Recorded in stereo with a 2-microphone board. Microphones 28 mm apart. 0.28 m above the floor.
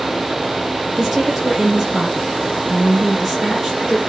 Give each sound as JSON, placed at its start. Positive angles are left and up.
{"t": 1.0, "sound": "a woman speaking", "side_deg": -15, "distance_m": 3.5}